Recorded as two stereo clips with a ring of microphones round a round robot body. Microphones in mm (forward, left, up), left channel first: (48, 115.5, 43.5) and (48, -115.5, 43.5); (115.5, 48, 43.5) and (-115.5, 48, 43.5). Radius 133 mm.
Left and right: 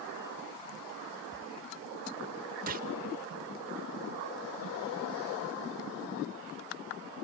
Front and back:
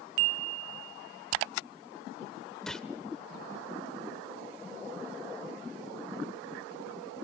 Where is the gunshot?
85° right, 1.0 m.